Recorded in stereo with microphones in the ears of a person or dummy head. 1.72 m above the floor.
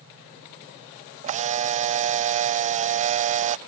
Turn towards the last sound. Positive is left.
turn(degrees=-30)  # may be behind; listen again after turning